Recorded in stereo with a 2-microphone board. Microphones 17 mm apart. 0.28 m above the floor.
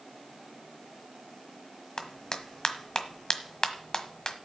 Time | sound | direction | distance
2.0 | a clap | 40° left (ahead or behind) | 1.2 m